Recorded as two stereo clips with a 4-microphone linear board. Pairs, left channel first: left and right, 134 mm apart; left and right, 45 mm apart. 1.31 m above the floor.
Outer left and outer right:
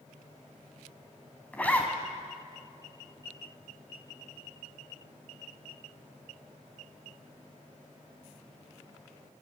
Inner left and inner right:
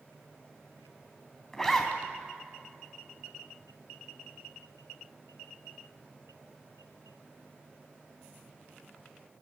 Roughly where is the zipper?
Centre.